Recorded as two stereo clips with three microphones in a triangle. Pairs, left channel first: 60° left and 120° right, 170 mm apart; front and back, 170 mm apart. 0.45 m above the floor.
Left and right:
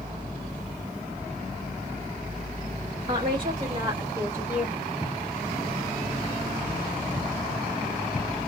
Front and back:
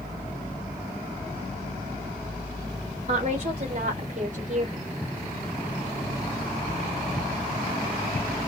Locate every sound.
3.1 s a woman speaking: 160° right, 1.8 m; by 4.9 s 155° left, 1.7 m